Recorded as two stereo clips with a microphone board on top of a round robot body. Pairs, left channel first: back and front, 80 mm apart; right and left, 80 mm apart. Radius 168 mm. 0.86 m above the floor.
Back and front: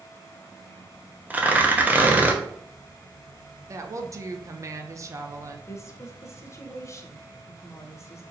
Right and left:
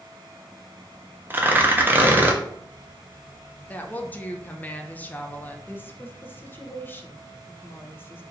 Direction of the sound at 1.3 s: 50° left.